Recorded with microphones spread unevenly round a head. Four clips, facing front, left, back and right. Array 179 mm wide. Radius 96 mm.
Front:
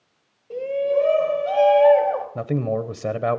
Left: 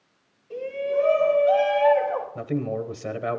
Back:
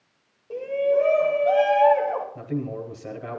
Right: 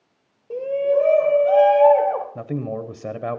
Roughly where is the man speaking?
Ahead.